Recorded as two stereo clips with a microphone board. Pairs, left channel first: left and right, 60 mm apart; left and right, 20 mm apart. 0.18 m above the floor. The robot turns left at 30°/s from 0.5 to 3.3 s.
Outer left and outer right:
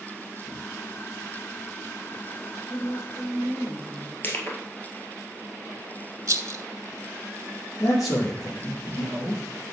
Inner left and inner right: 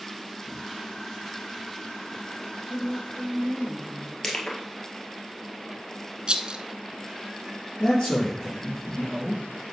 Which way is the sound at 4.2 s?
35° left (ahead or behind).